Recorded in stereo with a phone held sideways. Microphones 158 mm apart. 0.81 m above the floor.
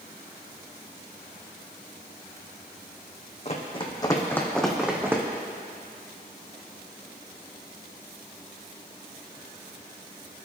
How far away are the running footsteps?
About 2.5 m.